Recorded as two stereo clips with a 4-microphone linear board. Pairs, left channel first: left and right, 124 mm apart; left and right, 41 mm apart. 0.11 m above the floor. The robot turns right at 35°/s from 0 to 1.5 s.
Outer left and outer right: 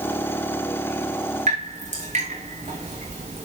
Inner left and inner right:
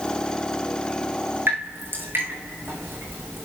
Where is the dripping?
70° right (ahead or behind), 4.5 m.